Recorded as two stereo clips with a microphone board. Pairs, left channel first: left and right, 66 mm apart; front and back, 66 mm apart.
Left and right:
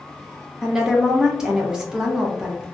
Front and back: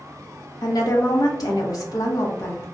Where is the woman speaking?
10° right, 0.9 m.